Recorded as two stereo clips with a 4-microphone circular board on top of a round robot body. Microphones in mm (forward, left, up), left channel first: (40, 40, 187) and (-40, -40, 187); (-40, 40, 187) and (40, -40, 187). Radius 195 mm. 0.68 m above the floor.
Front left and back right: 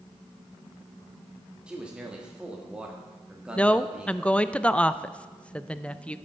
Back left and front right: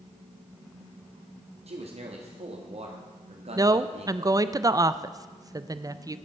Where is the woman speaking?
25° right, 0.6 m.